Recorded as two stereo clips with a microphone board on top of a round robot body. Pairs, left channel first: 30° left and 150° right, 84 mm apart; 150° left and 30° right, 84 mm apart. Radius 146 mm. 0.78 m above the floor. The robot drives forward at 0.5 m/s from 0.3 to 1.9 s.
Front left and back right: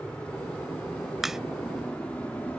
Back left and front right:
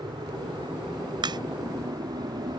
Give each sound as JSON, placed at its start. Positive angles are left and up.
{"t": 0.0, "sound": "an aircraft", "azimuth_deg": -45}
{"t": 1.2, "sound": "a crack", "azimuth_deg": -65}